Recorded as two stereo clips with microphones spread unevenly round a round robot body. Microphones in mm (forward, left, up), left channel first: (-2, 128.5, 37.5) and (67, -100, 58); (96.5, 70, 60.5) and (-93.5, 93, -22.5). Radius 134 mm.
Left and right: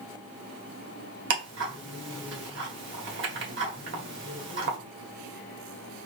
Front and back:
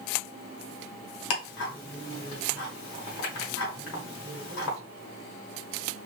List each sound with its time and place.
1.3 s ticking: 40° right, 1.4 m